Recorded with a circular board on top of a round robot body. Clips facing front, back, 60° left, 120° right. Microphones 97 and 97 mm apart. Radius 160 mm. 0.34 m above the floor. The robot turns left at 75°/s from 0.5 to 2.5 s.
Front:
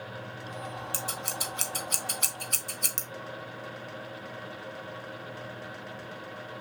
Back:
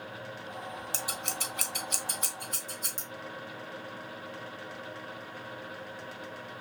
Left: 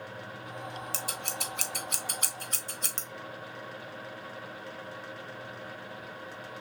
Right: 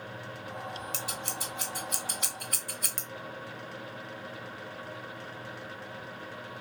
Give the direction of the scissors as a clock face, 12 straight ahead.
8 o'clock.